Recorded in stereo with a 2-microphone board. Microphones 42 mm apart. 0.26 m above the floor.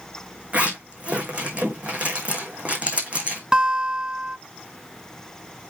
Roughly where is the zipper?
Right.